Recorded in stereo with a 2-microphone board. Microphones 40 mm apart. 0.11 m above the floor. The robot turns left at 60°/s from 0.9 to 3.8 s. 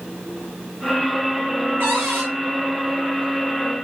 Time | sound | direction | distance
1.8 | a cupboard door | 80° right | 3 m